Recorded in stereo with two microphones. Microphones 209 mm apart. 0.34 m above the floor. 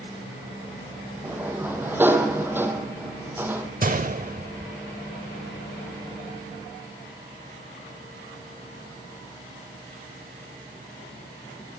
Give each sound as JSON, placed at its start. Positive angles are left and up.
{"t": 1.2, "sound": "a sliding door", "side_deg": -10, "distance_m": 3.0}
{"t": 3.8, "sound": "a gunshot", "side_deg": -40, "distance_m": 0.7}